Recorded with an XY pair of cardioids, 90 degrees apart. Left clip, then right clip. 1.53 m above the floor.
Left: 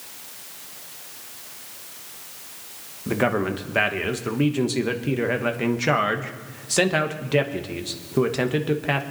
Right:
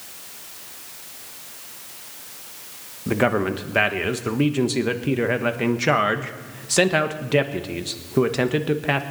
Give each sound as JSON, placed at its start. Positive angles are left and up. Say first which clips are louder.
{"t": 3.1, "sound": "a man speaking", "louder": "right 2 dB", "azimuth_deg": -10, "distance_m": 1.3}